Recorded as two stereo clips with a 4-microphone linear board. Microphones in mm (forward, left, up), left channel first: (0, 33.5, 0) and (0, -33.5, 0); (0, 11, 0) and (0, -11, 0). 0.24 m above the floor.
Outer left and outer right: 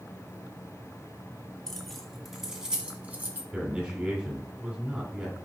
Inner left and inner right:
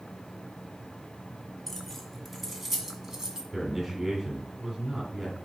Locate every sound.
1.7 s keys jangling: 5° left (ahead or behind), 1.9 m; by 3.4 s 30° right (ahead or behind), 1.3 m
3.5 s a man speaking: 15° right (ahead or behind), 1.9 m